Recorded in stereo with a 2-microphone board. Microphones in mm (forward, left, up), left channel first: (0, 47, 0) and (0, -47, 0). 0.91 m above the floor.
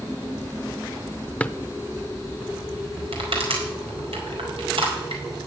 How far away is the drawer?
About 0.6 m.